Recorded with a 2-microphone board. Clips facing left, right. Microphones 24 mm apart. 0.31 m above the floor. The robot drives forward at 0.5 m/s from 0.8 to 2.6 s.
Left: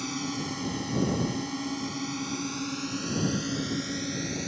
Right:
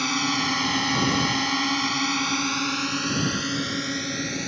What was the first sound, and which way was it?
A drone, 45° right (ahead or behind).